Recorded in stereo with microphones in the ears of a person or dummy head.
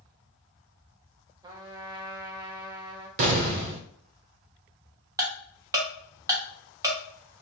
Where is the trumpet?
20° right (ahead or behind), 0.8 m.